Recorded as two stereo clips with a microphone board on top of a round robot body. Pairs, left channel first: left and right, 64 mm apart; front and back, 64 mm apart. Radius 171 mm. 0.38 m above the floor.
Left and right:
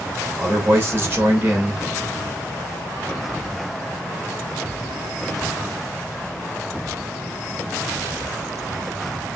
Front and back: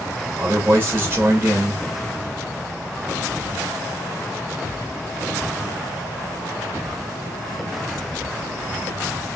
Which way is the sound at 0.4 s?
135° right.